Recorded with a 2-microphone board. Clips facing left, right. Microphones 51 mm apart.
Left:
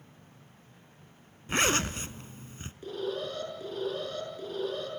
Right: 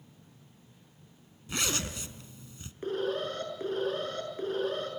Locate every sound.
1.5 s a zipper: 45° left (ahead or behind), 0.9 m
2.8 s an alarm: 45° right (ahead or behind), 7 m